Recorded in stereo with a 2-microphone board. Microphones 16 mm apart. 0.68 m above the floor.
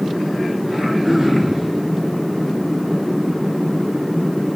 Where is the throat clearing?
25° right (ahead or behind), 3.5 m.